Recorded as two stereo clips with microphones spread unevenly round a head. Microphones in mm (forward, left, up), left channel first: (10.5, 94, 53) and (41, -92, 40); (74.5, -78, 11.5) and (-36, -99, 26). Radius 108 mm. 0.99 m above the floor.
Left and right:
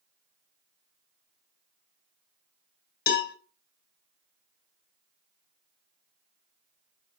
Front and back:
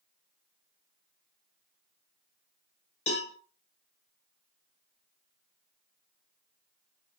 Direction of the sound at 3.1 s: 60° left.